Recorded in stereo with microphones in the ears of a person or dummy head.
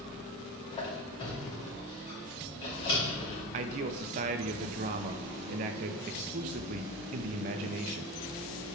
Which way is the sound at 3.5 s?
35° right (ahead or behind).